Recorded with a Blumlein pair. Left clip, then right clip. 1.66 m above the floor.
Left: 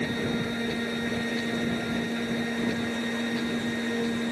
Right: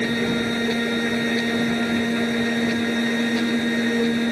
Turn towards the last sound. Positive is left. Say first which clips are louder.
# right 7 dB
turn(degrees=-20)